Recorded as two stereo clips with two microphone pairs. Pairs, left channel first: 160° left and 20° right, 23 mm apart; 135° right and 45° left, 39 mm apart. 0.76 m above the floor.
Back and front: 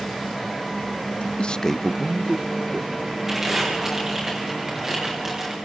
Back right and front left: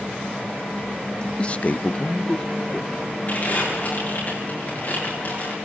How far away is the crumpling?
About 9 m.